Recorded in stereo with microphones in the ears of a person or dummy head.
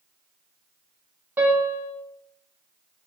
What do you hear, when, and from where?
1.4 s a piano: 10° right (ahead or behind), 0.8 m